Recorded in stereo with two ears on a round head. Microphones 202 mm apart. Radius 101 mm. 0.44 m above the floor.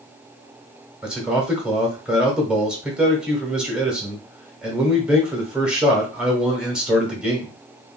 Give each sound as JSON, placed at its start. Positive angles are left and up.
{"t": 1.0, "sound": "a man speaking", "side_deg": -5, "distance_m": 1.0}